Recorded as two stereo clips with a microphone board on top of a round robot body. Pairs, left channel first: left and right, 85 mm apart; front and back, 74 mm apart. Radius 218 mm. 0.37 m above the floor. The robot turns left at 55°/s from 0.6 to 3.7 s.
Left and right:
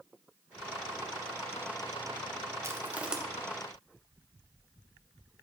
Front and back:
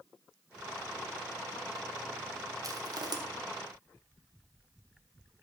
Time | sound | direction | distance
2.6 | crushing | 145° right | 1.2 m